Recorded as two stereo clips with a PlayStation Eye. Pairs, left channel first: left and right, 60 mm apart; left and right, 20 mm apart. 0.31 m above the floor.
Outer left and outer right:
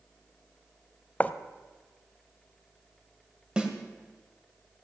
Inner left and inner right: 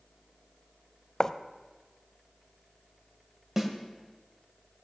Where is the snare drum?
15° right (ahead or behind), 1.6 m.